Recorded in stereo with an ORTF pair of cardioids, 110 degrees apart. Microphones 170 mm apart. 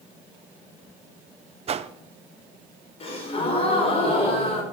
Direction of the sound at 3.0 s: 35° left.